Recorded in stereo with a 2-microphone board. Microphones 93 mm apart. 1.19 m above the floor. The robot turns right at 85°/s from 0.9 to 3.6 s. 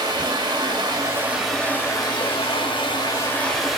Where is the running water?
50° right, 2.0 m; by 3.8 s straight behind, 2.0 m.